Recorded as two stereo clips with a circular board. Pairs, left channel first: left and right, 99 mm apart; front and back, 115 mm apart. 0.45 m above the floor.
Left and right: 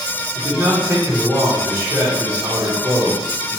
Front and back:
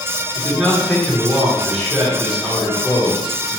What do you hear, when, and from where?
0.3 s a man speaking: 90° right, 1.0 m